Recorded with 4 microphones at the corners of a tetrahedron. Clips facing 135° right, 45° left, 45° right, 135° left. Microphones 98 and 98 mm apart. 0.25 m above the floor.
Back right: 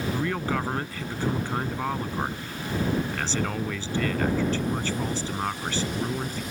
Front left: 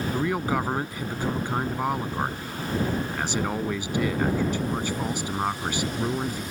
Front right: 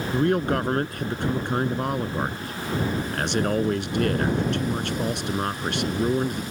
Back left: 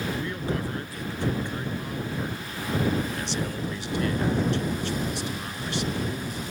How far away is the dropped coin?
I don't hear a dropped coin.